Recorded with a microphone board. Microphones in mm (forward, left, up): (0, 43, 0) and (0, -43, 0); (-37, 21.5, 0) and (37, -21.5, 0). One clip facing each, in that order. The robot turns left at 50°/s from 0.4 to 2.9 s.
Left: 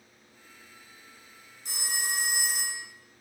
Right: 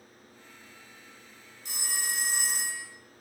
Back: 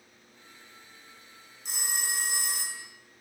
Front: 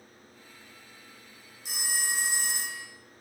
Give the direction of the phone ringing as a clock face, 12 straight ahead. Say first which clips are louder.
Left 2 dB, front 2 dB; 10 o'clock.